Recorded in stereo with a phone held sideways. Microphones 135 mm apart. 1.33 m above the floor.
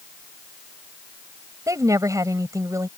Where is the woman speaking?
25° right (ahead or behind).